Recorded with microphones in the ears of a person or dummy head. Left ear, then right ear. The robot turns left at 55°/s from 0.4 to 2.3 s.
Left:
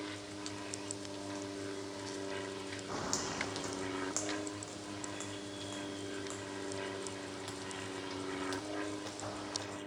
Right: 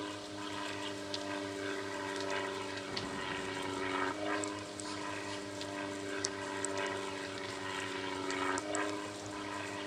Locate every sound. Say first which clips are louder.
0.0 s an aircraft: right 2 dB; 30° right; by 9.9 s 135° right
2.9 s footsteps: left 4 dB; 70° left (ahead or behind); by 9.8 s 80° left